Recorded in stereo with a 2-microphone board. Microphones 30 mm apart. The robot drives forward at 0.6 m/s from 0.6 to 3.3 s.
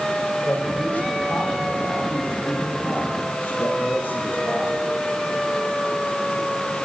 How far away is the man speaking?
About 7.5 m.